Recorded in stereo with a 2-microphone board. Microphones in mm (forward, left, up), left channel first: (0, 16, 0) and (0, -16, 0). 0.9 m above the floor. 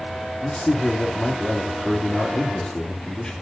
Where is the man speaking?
30° left (ahead or behind), 2 m.